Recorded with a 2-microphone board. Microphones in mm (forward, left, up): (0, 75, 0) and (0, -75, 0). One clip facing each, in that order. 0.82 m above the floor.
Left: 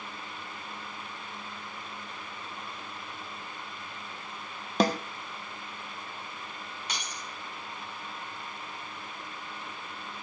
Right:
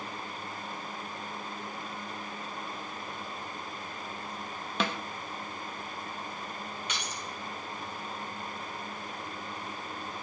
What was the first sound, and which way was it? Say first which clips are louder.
A snare drum: left 7 dB; 35° left (ahead or behind).